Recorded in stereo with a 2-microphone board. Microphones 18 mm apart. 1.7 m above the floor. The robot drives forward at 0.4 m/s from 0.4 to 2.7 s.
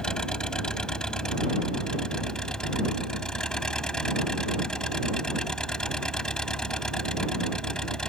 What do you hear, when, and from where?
0.0 s an engine running: 40° left (ahead or behind)